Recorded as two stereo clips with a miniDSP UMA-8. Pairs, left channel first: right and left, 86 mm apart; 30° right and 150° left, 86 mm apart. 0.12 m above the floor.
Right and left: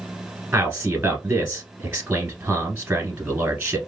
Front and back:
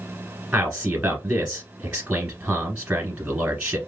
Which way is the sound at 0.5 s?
110° left.